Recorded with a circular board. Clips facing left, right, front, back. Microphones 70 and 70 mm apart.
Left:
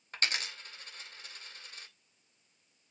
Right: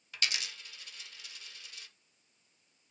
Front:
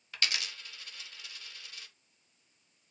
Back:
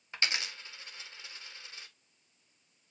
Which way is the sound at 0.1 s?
125° left.